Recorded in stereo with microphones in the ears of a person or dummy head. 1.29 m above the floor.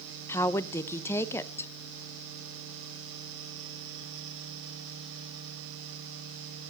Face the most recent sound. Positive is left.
turn(degrees=15)  # may be behind; listen again after turning